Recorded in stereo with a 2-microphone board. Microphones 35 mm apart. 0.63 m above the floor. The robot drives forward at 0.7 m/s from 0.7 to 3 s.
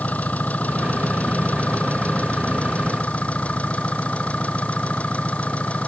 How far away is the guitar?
I don't hear a guitar.